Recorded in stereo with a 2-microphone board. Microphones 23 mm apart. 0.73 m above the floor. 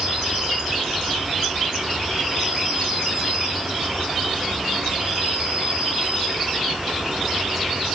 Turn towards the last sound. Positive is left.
turn(degrees=-65)  # may be behind; listen again after turning